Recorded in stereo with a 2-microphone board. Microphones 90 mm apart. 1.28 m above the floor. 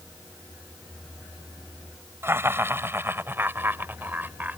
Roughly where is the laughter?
Right.